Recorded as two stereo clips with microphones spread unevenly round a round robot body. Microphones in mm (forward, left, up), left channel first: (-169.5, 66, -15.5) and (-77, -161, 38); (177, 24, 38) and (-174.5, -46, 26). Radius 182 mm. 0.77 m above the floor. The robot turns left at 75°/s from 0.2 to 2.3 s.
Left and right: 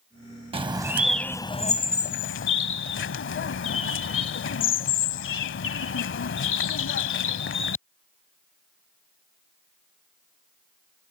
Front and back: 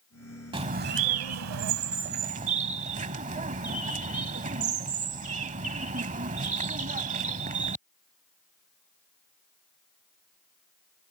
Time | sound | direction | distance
0.5 | a bird | 95° right | ?